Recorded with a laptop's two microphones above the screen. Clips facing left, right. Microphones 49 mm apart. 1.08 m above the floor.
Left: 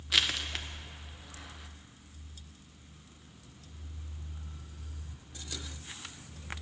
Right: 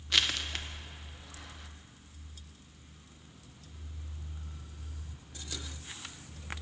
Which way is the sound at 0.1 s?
5° left (ahead or behind).